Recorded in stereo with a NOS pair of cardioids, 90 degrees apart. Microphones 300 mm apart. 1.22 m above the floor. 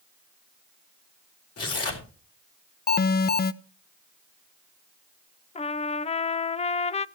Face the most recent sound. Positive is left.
turn(degrees=20)